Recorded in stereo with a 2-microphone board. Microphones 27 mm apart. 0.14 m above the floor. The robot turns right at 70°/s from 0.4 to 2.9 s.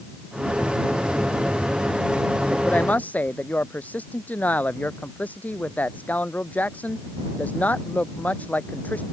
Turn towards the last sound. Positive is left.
turn(degrees=80)